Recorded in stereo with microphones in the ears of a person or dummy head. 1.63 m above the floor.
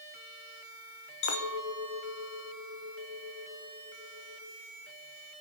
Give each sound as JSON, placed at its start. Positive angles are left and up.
{"t": 1.2, "sound": "a clink", "side_deg": 65, "distance_m": 2.0}